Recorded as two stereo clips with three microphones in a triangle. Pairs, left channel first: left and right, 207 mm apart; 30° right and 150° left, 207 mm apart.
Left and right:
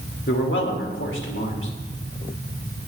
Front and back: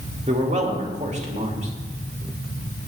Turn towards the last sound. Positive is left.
turn(degrees=95)